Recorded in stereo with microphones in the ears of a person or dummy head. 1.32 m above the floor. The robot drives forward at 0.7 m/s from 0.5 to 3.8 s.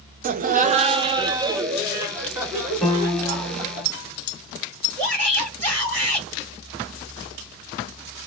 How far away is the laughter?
About 0.6 m.